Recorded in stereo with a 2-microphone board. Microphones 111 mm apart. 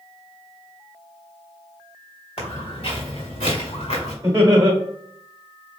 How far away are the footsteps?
About 2 m.